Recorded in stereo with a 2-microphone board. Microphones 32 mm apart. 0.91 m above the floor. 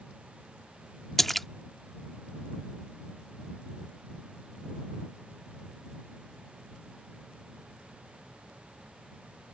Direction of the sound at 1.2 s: 5° left (ahead or behind).